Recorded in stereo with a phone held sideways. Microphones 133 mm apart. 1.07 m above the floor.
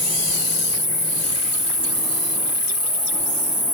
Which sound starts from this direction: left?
An insect, at 0.0 s.